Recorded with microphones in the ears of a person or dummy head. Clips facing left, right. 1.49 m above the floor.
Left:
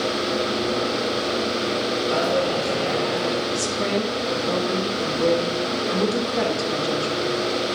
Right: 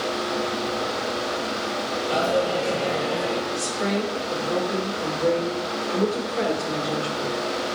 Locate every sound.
2.1 s a dropped coin: 25° left (ahead or behind), 3.5 m
3.5 s a woman speaking: 65° left (ahead or behind), 3 m